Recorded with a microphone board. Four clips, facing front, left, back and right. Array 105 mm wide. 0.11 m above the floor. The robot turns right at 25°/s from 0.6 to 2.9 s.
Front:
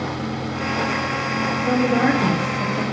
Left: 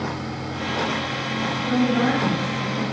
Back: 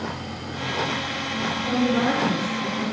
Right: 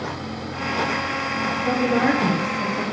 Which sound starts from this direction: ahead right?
A woman speaking, at 1.6 s.